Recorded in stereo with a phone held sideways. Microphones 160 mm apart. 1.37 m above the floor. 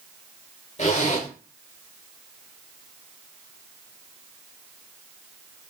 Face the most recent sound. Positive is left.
turn(degrees=45)  # may be behind; listen again after turning